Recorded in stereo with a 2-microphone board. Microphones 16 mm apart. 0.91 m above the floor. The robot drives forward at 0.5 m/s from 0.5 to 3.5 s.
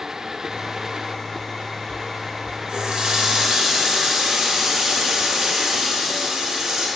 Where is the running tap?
65° right (ahead or behind), 0.8 m; by 6.9 s 45° right (ahead or behind), 1.0 m.